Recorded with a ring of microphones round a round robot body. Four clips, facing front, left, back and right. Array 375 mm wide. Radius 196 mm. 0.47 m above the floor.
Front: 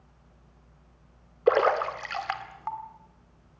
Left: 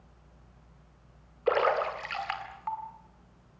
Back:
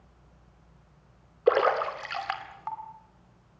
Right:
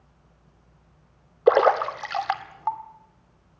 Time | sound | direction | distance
1.5 | a splash | 90° right | 1.9 m